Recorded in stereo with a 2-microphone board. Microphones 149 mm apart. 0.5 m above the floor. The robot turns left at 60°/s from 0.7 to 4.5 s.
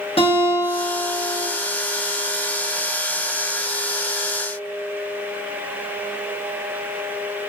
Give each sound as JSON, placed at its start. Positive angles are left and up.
{"t": 0.2, "sound": "a guitar", "azimuth_deg": 105, "distance_m": 1.2}